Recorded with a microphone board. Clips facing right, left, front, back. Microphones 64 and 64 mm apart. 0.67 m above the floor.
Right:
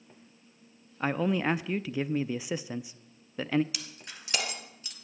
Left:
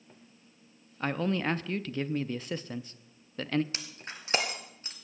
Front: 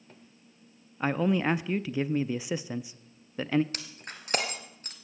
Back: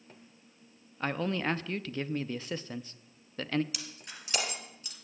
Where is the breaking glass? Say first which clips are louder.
Left 2 dB, front 3 dB; 40° left, 1.6 m.